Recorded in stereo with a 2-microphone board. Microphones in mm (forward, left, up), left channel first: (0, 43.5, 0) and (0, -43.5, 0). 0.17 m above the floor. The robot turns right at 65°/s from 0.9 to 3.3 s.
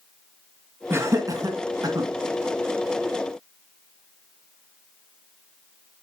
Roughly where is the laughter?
Right.